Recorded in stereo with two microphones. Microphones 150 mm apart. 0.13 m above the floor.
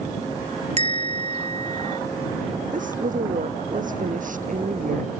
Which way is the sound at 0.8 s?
50° right (ahead or behind).